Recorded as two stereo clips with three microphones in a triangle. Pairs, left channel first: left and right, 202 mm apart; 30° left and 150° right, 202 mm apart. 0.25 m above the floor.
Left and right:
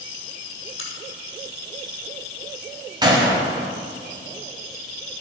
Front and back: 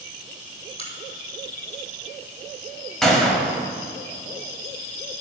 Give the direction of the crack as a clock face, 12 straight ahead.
9 o'clock.